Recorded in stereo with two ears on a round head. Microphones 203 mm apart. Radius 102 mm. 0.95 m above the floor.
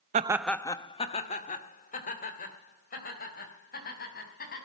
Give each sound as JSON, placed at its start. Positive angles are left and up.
{"t": 0.1, "sound": "laughter", "side_deg": -30, "distance_m": 0.5}